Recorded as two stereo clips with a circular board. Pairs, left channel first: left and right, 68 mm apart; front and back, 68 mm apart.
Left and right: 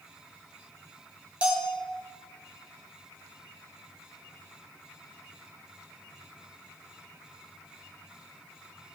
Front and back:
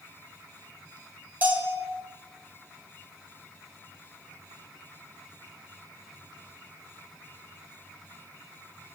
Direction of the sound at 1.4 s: 145° right.